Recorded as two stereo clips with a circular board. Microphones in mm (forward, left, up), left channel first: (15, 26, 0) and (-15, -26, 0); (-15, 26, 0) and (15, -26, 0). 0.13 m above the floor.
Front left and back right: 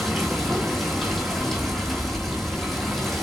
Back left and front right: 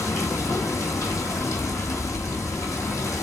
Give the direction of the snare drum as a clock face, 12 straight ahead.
No snare drum in this recording.